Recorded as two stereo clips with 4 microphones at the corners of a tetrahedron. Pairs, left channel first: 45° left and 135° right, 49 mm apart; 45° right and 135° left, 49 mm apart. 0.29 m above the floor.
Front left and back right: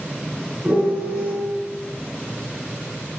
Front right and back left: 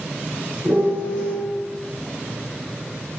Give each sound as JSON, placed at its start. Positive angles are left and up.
{"t": 0.7, "sound": "a piano", "azimuth_deg": 160, "distance_m": 2.0}